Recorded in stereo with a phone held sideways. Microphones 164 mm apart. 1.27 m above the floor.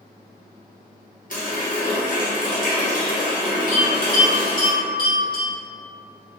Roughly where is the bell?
Left.